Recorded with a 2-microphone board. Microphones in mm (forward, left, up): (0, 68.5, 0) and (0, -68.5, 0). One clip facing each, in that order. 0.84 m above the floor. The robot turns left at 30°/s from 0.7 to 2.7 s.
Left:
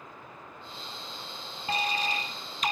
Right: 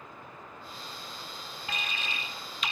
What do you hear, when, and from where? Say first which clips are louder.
1.7 s an alarm: left 9 dB; 130° left, 0.9 m; by 2.7 s 95° left, 0.9 m